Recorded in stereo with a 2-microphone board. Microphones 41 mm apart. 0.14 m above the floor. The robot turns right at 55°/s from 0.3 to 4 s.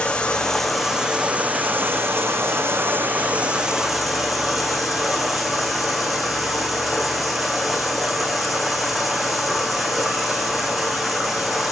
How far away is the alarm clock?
No alarm clock in this recording.